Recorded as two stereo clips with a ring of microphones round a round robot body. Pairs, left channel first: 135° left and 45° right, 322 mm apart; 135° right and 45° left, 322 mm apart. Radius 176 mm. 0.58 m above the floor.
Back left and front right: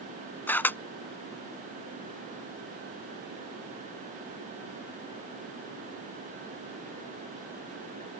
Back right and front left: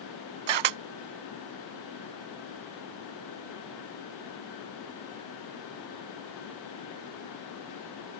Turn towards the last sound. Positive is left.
turn(degrees=50)